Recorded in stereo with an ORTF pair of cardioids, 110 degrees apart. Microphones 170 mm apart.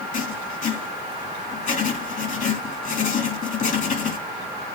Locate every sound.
0.1 s writing: 50° left, 3 m